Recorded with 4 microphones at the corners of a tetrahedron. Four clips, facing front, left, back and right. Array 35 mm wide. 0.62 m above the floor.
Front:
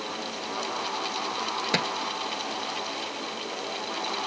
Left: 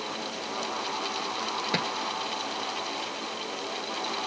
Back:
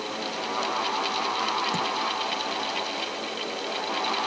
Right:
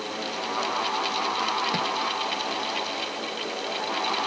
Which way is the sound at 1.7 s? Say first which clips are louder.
Right 2 dB, front 1 dB; 15° left.